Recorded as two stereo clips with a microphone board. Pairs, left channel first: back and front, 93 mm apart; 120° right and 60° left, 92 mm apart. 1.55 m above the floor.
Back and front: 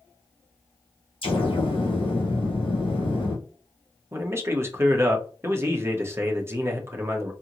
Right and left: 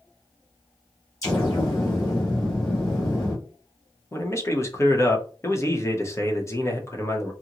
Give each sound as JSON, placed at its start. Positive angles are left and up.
{"t": 1.2, "sound": "an explosion", "azimuth_deg": -175, "distance_m": 1.4}
{"t": 4.1, "sound": "a man speaking", "azimuth_deg": -60, "distance_m": 0.8}